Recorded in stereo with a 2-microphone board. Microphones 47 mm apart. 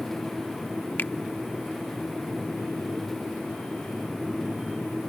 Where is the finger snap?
40° left (ahead or behind).